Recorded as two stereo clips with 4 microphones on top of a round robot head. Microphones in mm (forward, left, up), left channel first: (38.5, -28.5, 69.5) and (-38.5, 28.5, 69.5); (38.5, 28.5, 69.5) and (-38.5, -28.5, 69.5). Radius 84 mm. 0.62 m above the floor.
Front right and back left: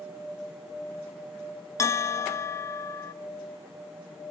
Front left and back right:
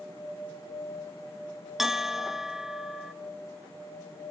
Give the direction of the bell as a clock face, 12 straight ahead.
2 o'clock.